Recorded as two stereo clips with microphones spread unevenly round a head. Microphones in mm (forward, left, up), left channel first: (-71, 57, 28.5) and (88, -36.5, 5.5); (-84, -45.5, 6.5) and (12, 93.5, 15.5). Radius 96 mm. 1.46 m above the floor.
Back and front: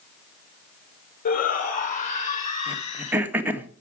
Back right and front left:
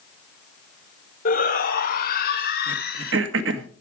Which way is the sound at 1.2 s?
160° right.